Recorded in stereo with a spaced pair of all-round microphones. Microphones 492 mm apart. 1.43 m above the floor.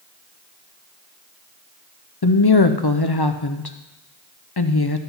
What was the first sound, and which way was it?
A woman speaking, 50° left (ahead or behind).